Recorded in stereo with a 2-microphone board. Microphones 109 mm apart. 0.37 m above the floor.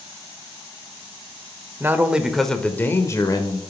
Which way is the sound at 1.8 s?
20° right (ahead or behind).